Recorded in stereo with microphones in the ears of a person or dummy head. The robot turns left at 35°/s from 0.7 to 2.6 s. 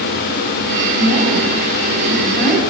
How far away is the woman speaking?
About 9.5 m.